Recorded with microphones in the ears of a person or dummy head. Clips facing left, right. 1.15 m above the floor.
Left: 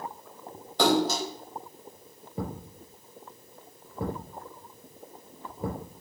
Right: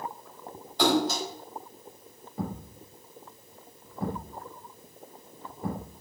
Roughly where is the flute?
I don't hear a flute.